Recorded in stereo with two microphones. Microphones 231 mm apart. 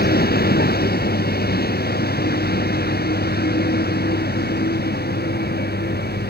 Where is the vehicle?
45° left (ahead or behind).